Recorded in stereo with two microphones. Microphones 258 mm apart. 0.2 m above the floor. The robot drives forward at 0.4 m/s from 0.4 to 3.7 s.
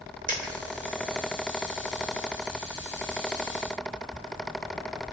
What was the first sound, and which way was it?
A dropped coin, 35° right (ahead or behind).